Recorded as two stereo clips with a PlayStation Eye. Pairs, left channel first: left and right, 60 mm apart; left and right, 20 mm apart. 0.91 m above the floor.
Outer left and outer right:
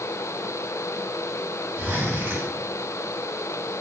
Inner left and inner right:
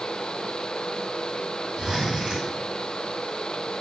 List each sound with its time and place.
1.8 s a zipper: 45° right (ahead or behind), 3.5 m